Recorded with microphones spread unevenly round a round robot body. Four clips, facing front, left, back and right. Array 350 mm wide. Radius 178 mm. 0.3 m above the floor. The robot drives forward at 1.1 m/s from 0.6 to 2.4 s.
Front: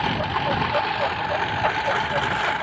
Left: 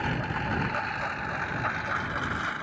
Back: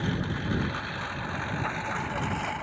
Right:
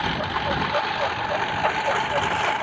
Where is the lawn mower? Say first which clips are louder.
Right 5 dB, front 8 dB; 25° right; by 2.6 s 45° right.